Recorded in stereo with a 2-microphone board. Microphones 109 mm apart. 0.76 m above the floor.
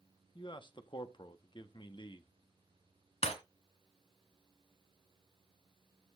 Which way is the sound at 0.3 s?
45° left (ahead or behind).